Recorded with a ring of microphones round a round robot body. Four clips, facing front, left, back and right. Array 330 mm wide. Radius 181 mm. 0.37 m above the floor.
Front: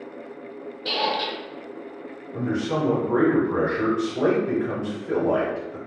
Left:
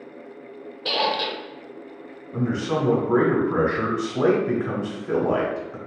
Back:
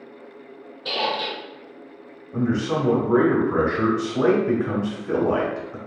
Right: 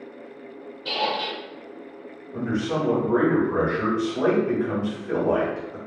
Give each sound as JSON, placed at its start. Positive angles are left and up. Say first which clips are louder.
{"t": 0.8, "sound": "a squeak", "louder": "left 2 dB, even", "azimuth_deg": 90, "distance_m": 0.6}
{"t": 2.3, "sound": "a man speaking", "louder": "left 1 dB, back 2 dB", "azimuth_deg": 130, "distance_m": 1.4}